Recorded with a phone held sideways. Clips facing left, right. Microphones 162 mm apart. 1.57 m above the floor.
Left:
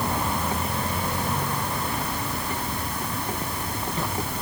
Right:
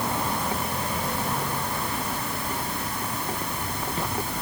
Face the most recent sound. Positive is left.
No sound to turn to.